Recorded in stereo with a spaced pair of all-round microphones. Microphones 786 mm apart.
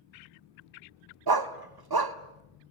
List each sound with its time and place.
1.3 s a dog barking: 30° right (ahead or behind), 1.0 m